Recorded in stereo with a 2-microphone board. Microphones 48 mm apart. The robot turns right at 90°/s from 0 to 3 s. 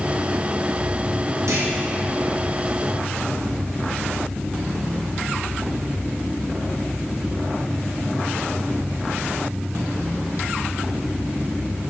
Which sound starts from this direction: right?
A clunk, at 1.5 s.